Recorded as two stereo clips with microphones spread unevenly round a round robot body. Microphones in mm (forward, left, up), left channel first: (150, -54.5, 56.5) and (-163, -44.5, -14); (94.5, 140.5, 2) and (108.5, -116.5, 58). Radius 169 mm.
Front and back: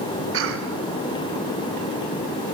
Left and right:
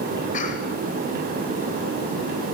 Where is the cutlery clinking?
I don't hear cutlery clinking.